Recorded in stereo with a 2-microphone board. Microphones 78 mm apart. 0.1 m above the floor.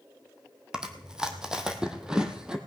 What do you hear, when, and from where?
0.7 s chewing: 5° right (ahead or behind), 1.4 m